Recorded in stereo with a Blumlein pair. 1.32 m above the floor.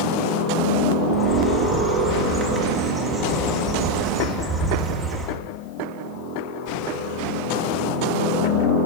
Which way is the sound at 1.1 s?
10° right.